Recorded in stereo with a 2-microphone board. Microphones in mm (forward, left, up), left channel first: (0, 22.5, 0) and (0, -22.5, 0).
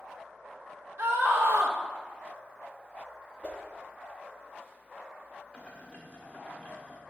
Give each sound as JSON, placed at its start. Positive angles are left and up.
{"t": 1.0, "sound": "a scream", "side_deg": -50, "distance_m": 0.8}
{"t": 3.4, "sound": "a whoosh", "side_deg": 30, "distance_m": 0.9}
{"t": 5.5, "sound": "boiling", "side_deg": 25, "distance_m": 1.3}